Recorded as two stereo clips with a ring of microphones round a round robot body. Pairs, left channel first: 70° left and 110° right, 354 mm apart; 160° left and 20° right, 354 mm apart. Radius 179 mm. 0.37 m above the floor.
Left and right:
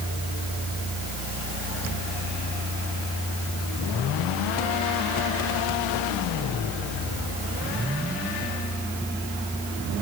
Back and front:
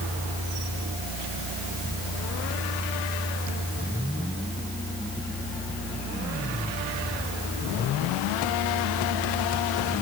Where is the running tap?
I don't hear a running tap.